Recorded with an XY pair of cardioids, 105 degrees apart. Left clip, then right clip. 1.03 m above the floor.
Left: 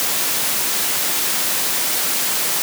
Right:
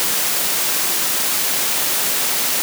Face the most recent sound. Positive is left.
No sound to turn to.